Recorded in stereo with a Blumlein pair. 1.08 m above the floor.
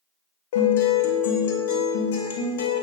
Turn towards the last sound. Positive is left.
turn(degrees=55)